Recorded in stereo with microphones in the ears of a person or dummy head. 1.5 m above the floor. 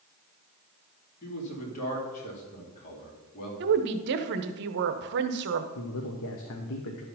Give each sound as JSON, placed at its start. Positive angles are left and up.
{"t": 1.2, "sound": "a man speaking", "side_deg": 40, "distance_m": 3.0}
{"t": 3.6, "sound": "a woman speaking", "side_deg": -60, "distance_m": 0.8}
{"t": 5.8, "sound": "a man speaking", "side_deg": 65, "distance_m": 1.0}